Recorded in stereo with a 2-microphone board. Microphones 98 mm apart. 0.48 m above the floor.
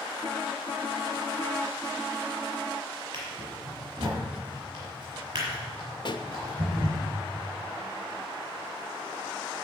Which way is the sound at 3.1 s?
40° right (ahead or behind).